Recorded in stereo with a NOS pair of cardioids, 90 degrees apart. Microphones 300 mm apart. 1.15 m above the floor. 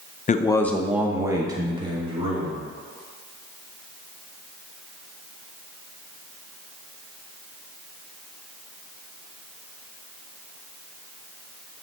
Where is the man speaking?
25° left, 0.6 m; by 2.6 s 20° right, 3 m.